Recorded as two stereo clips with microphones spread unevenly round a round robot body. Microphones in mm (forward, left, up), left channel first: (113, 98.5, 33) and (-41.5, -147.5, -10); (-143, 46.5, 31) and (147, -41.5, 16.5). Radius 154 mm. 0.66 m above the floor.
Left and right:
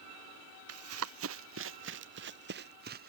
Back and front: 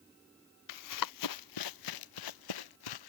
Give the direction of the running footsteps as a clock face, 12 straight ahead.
6 o'clock.